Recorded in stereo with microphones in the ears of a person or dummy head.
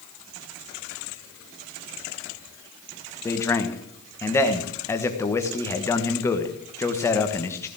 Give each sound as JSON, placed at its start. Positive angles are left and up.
{"t": 3.2, "sound": "a man speaking", "side_deg": 15, "distance_m": 1.5}